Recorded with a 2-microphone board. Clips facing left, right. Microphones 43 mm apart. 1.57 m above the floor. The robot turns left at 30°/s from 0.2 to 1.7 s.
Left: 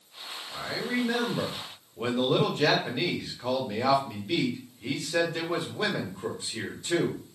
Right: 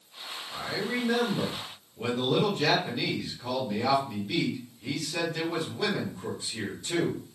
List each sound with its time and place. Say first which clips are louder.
0.5 s a man speaking: left 1 dB; 175° right, 0.8 m; by 7.2 s 150° left, 0.8 m